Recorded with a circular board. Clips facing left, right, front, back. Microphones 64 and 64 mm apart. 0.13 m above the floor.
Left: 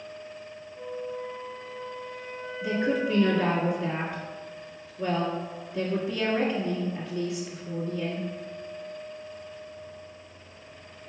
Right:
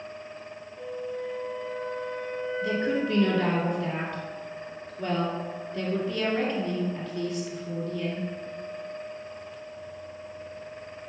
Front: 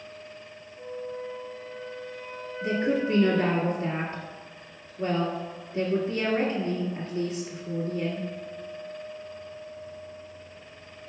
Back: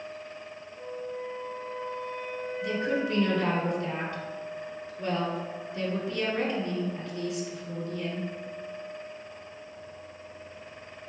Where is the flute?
175° left, 2.0 m.